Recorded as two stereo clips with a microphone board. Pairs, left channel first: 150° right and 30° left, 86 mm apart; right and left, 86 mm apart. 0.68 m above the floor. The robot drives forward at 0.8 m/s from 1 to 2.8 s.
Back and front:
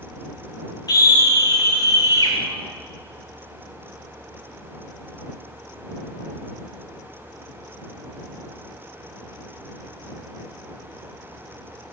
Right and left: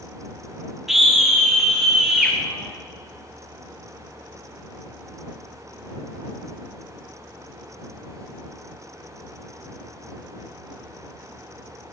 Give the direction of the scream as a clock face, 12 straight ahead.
6 o'clock.